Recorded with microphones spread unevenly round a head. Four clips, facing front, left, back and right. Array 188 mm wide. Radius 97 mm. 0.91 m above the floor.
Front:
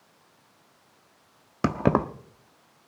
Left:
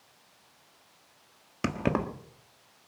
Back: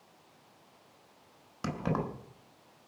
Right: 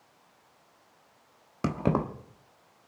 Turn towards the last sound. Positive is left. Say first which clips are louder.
# right 1 dB, front 10 dB
turn(degrees=0)